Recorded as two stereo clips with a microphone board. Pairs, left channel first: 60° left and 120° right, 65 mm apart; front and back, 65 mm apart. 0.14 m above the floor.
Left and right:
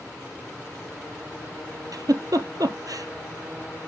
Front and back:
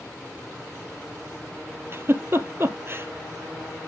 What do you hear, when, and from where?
1.9 s a giggle: 130° right, 1.0 m